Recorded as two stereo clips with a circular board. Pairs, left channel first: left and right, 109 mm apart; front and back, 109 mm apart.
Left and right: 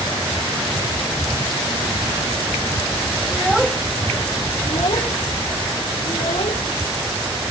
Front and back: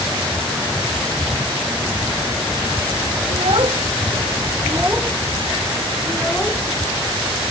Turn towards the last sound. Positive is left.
turn(degrees=70)